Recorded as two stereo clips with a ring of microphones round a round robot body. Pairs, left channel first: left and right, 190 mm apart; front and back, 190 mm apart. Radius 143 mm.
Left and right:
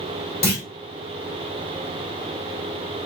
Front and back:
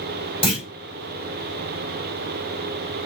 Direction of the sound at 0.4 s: 60° left.